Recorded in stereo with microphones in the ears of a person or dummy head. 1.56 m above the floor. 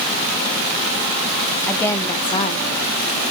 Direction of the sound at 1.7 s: 10° left (ahead or behind).